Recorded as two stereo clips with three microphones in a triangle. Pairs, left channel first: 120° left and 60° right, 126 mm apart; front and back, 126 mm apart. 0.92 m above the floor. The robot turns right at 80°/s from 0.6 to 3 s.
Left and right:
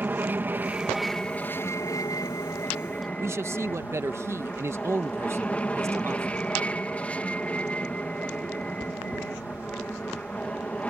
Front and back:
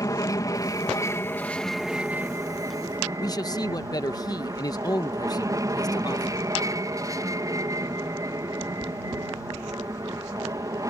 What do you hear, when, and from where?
0.0 s an aircraft: 5° right; by 10.9 s 175° right
3.2 s a man speaking: 15° right